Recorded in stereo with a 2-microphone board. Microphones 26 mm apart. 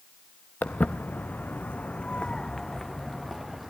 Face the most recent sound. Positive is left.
turn(degrees=0)  # may be behind; listen again after turning